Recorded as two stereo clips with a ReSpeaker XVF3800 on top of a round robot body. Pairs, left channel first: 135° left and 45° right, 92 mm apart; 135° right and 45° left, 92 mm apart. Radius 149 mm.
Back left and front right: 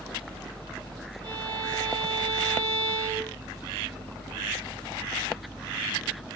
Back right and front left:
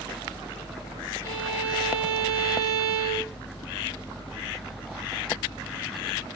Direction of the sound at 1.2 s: 10° right.